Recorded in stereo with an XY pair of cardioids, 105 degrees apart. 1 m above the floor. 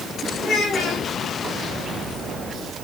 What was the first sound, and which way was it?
A child speaking, 55° left.